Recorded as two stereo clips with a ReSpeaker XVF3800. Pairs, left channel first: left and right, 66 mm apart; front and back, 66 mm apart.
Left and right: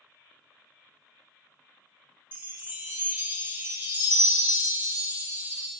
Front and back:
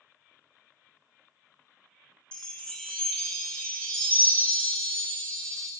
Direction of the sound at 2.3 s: 65° right.